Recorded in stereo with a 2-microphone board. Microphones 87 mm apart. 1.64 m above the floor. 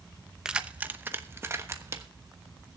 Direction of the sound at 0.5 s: 10° right (ahead or behind).